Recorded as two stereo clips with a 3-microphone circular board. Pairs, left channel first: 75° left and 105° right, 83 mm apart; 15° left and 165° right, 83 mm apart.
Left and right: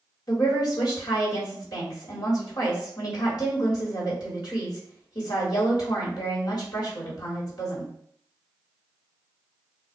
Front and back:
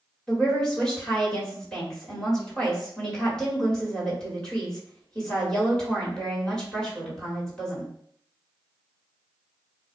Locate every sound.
0.3 s a woman speaking: 95° left, 1.9 m